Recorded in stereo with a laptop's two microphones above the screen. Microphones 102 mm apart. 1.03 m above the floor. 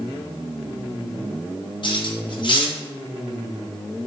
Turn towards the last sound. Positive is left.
turn(degrees=50)  # may be behind; listen again after turning